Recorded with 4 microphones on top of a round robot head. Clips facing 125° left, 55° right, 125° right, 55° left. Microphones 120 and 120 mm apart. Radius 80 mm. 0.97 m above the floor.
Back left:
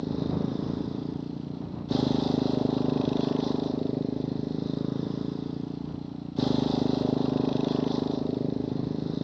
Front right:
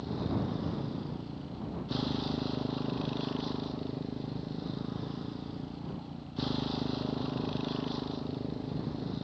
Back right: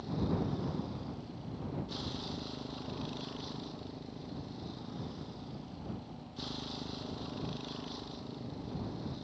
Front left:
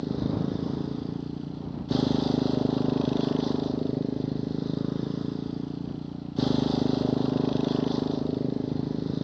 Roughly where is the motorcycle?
Left.